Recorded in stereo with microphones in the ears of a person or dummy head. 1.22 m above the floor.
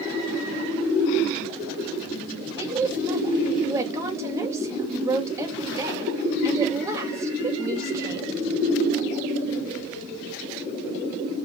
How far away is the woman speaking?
About 2.5 m.